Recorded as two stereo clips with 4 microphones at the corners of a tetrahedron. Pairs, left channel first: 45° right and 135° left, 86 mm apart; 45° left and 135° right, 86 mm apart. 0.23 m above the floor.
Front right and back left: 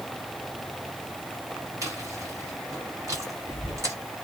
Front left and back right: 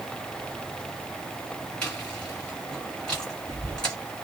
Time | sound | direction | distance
1.8 | chewing | 120° left | 1.9 m